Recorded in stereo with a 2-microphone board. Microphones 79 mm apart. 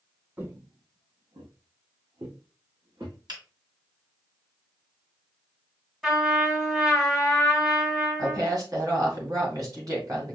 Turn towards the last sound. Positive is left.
turn(degrees=-45)  # may be behind; listen again after turning